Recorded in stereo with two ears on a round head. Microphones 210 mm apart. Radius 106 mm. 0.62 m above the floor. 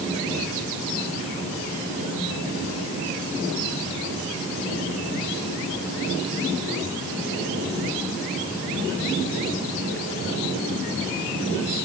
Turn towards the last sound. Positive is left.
No sound to turn to.